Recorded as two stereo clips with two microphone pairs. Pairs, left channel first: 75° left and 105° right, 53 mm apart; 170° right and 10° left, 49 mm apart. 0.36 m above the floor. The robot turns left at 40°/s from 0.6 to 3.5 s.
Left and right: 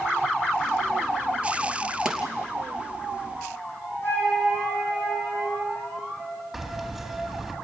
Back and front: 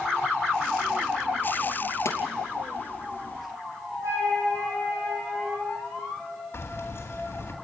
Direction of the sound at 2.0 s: 175° left.